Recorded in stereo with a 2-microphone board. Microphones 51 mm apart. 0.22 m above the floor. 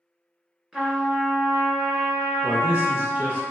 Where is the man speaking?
40° right (ahead or behind), 1.2 m.